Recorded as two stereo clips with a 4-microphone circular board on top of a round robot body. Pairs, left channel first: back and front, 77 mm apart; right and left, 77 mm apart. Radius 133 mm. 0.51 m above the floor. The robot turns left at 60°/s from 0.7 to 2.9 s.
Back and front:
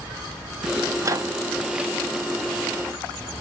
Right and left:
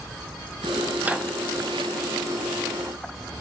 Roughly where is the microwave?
Ahead left.